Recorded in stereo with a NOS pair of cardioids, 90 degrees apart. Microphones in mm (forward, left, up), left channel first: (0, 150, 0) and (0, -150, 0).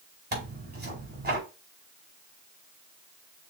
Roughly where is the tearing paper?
Ahead right.